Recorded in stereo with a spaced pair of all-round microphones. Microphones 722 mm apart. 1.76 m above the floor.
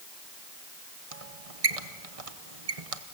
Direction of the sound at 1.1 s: 50° right (ahead or behind).